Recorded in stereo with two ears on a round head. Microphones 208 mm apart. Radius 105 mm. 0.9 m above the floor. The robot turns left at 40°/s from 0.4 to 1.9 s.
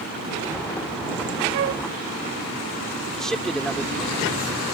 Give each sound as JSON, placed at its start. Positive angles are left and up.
{"t": 1.5, "sound": "a flute", "side_deg": -50}
{"t": 3.1, "sound": "a man speaking", "side_deg": 0}